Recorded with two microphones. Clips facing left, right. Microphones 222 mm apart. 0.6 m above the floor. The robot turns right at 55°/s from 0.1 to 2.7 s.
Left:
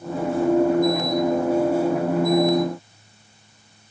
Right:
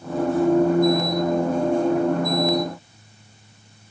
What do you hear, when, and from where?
Only background noise.